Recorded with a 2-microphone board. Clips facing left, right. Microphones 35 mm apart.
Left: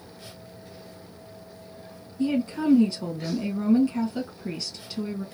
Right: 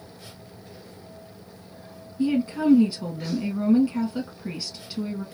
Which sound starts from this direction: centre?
A woman speaking, at 2.2 s.